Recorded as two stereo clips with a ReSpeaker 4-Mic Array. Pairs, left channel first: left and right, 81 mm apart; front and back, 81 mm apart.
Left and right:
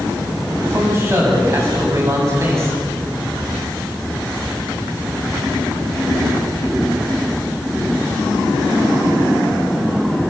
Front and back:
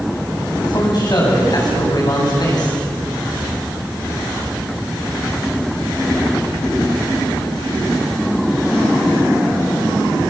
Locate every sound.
0.6 s a man speaking: 35° right, 7.5 m